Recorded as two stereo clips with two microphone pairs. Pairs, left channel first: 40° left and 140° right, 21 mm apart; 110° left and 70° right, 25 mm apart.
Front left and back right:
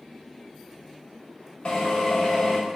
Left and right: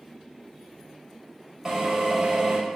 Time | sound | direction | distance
1.6 | a drill | 10° left | 5 m